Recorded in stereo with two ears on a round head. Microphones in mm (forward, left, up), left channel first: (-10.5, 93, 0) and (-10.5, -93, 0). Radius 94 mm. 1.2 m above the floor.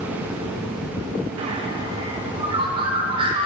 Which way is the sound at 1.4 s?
25° right (ahead or behind).